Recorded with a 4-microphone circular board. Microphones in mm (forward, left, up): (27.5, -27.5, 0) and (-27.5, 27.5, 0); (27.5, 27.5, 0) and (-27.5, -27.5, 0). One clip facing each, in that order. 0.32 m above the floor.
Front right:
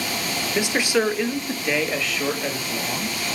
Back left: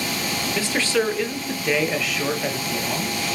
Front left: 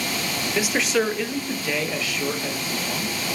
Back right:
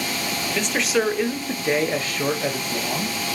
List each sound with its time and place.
0.5 s a man speaking: 10° right, 0.9 m; by 3.1 s 150° right, 1.5 m